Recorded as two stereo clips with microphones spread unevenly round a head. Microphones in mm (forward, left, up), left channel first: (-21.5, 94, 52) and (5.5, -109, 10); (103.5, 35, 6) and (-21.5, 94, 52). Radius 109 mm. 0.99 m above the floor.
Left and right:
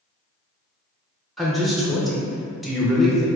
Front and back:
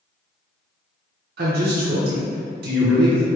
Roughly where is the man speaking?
Behind.